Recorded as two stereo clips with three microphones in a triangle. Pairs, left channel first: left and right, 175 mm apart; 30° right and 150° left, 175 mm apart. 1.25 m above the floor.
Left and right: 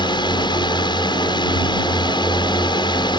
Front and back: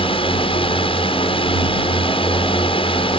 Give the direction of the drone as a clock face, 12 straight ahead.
11 o'clock.